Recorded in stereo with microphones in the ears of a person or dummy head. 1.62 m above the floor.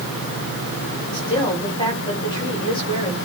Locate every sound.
1.1 s a woman speaking: 25° left (ahead or behind), 7.5 m